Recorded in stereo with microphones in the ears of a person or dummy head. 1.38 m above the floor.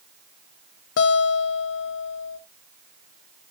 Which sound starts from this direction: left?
A guitar, at 1.0 s.